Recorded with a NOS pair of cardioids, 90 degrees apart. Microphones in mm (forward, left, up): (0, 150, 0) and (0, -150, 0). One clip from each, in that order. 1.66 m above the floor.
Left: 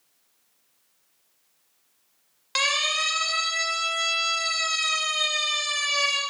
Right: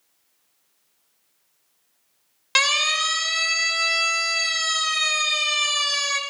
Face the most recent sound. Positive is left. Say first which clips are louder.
# right 4 dB
turn(degrees=-40)